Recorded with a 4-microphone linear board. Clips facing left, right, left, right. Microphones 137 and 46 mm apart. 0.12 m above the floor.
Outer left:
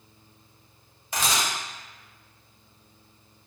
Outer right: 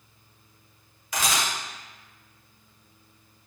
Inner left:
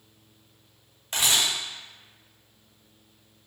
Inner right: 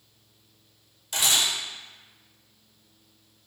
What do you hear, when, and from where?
1.1 s a camera shutter: 30° left (ahead or behind), 1.3 m